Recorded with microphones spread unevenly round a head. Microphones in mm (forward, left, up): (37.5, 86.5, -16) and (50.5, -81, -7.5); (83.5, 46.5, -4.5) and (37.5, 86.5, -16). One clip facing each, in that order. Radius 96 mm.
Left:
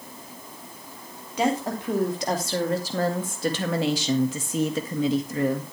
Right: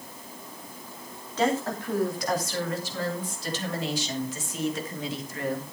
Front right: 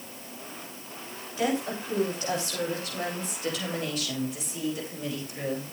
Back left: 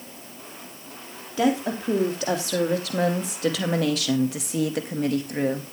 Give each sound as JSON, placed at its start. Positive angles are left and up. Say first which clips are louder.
{"t": 1.4, "sound": "a woman speaking", "louder": "left 1 dB, back left 5 dB", "azimuth_deg": 175, "distance_m": 3.0}